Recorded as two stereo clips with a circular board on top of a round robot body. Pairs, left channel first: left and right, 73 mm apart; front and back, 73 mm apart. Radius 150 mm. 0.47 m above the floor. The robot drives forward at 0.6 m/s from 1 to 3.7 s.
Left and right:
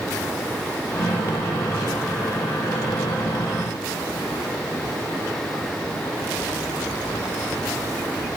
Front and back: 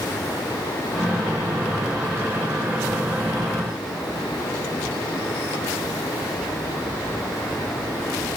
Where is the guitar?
I don't hear a guitar.